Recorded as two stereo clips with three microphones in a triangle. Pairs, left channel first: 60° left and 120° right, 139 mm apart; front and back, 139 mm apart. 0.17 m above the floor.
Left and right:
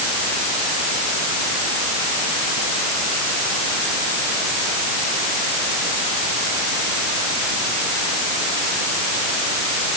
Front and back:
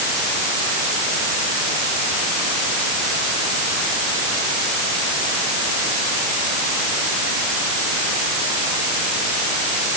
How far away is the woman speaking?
I don't hear a woman speaking.